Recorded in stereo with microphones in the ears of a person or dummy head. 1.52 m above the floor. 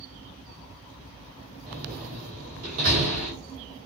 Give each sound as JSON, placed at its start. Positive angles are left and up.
{"t": 1.7, "sound": "a door slam", "side_deg": -55, "distance_m": 2.5}